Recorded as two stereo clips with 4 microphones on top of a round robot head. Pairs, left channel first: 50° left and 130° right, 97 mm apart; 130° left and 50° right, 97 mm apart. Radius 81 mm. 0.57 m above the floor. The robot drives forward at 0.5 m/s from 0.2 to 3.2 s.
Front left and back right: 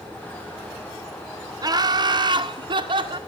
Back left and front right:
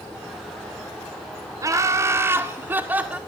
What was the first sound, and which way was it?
Laughter, 95° right.